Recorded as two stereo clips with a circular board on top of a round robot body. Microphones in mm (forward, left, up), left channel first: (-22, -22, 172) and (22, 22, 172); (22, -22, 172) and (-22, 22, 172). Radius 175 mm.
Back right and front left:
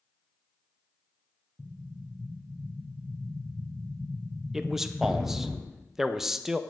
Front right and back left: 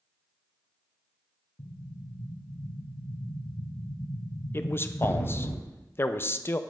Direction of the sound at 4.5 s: 35° right.